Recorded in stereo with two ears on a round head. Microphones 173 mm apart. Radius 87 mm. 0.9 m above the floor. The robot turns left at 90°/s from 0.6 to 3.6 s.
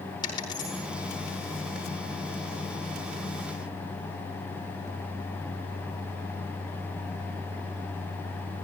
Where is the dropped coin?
25° left (ahead or behind), 6 m; by 0.8 s 5° left (ahead or behind), 6 m.